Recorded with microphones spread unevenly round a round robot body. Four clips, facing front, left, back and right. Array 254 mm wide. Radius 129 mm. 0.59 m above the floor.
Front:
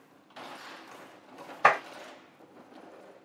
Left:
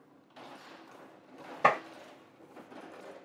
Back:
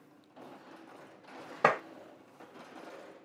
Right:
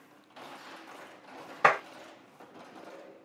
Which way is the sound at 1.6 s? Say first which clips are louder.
Right 2 dB, front 4 dB; 170° left.